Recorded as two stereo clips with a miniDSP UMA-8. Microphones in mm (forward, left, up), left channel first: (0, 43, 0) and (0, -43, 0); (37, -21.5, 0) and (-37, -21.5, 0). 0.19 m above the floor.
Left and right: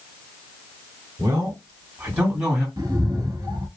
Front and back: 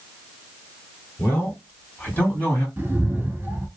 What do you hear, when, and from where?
1.2 s a man speaking: 55° right, 2 m; by 2.7 s 20° right, 1.6 m
2.8 s a cat meowing: 120° right, 1.1 m